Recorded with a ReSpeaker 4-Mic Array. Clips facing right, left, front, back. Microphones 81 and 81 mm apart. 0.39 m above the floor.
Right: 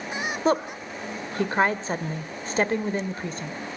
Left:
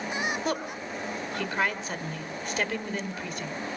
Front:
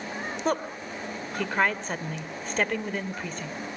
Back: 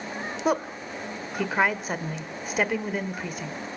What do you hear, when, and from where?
0.5 s a woman speaking: 105° right, 1.3 m